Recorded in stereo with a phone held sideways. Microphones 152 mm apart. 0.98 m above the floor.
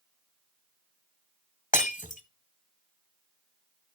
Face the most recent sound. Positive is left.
turn(degrees=60)  # may be behind; listen again after turning